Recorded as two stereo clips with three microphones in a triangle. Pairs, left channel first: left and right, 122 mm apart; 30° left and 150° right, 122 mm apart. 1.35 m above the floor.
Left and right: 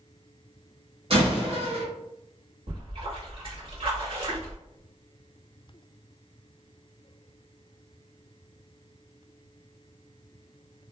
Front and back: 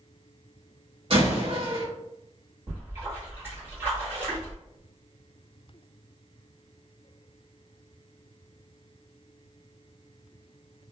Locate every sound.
1.1 s a door slam: 120° right, 1.0 m
2.7 s a splash: 85° right, 1.6 m